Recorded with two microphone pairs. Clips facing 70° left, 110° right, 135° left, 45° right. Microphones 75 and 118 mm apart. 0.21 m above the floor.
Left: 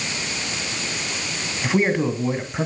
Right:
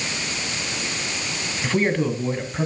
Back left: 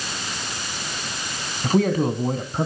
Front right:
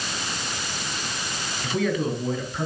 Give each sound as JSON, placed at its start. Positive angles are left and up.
{"t": 1.6, "sound": "a man speaking", "azimuth_deg": 140, "distance_m": 1.9}